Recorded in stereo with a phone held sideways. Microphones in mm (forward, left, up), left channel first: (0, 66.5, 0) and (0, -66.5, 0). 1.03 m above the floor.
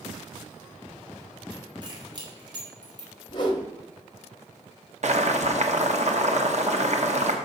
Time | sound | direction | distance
1.8 | keys jangling | 35° right (ahead or behind) | 2.5 m
3.3 | a whoosh | 35° left (ahead or behind) | 2.0 m
5.0 | boiling | 60° right (ahead or behind) | 1.2 m